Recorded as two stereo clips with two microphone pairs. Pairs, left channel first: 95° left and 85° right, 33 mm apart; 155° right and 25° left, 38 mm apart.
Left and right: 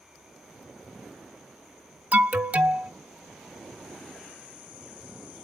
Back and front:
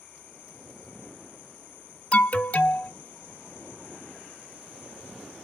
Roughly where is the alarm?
Right.